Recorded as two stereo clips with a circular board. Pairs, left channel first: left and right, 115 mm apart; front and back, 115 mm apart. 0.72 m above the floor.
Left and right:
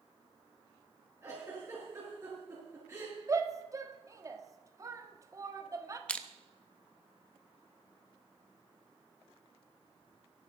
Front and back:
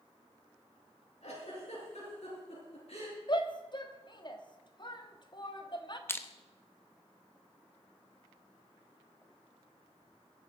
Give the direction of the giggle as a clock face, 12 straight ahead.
1 o'clock.